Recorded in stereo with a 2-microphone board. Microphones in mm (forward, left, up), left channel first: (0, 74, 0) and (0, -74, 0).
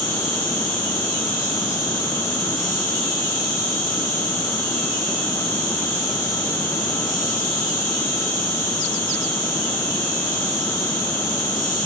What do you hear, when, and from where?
0.0 s an insect: 70° left (ahead or behind), 4.5 m